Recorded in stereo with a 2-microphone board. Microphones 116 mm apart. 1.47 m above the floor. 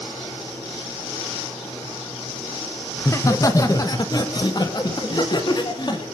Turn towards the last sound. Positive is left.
turn(degrees=40)  # may be behind; listen again after turning